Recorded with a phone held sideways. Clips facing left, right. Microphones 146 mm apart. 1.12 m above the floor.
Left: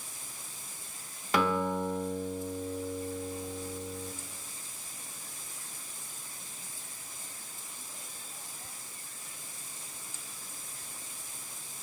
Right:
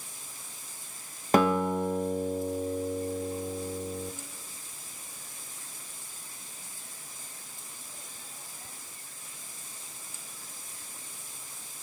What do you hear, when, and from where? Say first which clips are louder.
1.3 s a guitar: right 5 dB; 45° right (ahead or behind), 1.2 m